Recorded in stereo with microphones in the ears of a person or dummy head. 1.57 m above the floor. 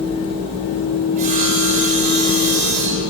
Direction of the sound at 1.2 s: 35° right (ahead or behind).